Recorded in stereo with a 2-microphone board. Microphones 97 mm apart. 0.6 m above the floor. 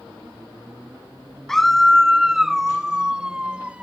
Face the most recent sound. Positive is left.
turn(degrees=-10)  # may be behind; listen again after turning